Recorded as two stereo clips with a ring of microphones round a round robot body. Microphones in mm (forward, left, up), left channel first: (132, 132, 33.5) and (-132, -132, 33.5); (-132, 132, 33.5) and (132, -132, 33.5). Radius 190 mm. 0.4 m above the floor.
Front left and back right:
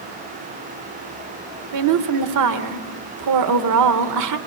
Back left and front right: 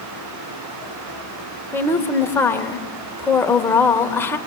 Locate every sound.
1.7 s a woman speaking: 145° right, 1.4 m